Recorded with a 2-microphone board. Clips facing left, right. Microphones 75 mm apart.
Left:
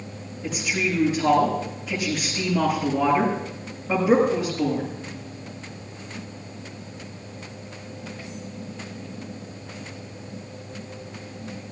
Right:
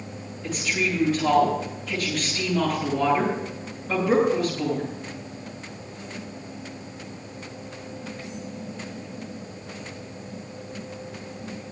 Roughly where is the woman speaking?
Centre.